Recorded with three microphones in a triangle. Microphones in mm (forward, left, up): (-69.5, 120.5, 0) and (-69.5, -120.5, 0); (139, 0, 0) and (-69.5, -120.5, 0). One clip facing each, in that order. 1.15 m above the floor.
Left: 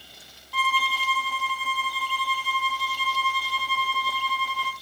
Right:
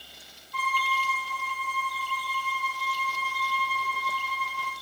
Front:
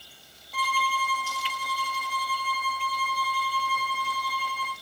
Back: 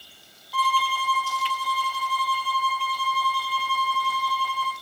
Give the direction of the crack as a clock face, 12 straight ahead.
No crack in this recording.